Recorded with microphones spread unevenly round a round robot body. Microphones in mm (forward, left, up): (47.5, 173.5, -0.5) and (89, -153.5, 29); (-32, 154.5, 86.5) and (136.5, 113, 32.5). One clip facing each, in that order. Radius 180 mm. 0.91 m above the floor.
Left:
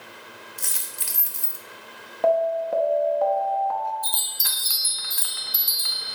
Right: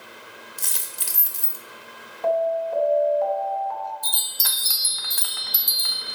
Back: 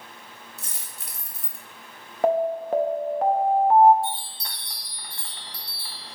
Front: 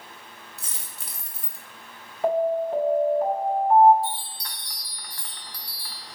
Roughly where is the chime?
Behind right.